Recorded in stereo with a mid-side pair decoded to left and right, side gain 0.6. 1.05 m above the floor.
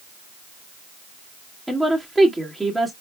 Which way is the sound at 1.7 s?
5° right.